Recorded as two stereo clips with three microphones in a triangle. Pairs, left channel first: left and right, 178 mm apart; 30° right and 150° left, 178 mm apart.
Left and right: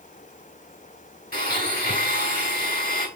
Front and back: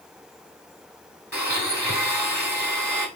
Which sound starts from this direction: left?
A blender, at 1.3 s.